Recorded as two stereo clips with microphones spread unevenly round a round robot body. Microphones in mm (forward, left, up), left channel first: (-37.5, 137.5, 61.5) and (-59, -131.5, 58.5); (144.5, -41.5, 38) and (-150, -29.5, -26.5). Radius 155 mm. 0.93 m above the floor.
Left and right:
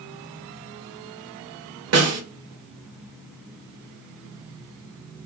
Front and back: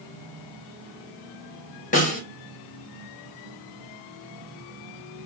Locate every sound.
1.9 s a snare drum: 70° right, 1.7 m